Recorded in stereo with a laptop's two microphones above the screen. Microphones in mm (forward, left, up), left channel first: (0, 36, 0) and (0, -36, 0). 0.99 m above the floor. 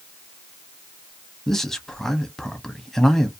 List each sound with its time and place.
1.5 s a man speaking: 5° left (ahead or behind), 0.7 m